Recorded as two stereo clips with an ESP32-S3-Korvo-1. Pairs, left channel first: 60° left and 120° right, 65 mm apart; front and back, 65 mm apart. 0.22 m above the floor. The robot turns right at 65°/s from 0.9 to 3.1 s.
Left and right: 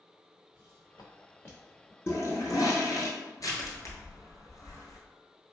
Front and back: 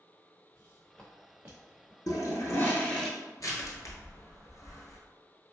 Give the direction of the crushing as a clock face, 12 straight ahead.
11 o'clock.